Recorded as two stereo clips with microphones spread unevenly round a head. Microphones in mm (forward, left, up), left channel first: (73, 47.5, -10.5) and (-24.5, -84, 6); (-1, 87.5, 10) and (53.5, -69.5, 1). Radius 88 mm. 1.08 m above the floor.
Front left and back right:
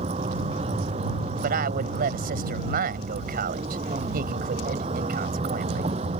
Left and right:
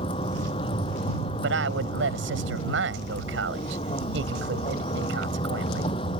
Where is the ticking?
No ticking in this recording.